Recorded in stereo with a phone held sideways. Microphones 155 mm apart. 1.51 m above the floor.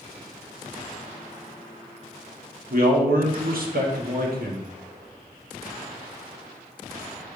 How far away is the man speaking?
About 0.9 m.